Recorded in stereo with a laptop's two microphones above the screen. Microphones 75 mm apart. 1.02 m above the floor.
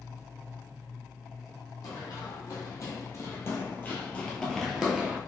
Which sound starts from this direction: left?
Running footsteps, at 1.8 s.